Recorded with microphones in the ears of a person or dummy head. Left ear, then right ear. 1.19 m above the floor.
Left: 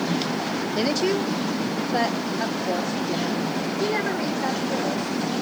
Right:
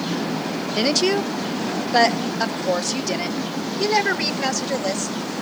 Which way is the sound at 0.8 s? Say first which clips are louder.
Right 4 dB; 20° right (ahead or behind).